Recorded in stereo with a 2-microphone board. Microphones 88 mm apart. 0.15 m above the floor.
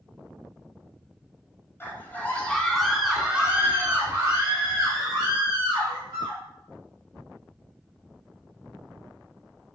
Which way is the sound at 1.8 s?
25° left (ahead or behind).